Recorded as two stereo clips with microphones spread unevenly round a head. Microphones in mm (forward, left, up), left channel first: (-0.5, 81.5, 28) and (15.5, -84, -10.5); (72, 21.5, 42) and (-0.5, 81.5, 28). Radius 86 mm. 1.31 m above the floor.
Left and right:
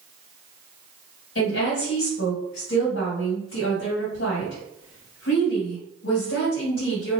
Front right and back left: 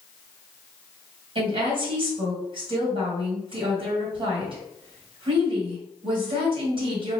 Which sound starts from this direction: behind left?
A woman speaking, at 1.4 s.